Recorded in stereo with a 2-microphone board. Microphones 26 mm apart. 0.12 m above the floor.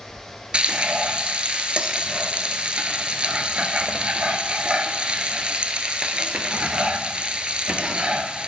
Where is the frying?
45° right (ahead or behind), 0.7 m.